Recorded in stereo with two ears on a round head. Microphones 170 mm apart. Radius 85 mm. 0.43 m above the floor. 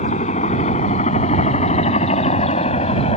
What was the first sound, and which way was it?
A helicopter, 40° left (ahead or behind).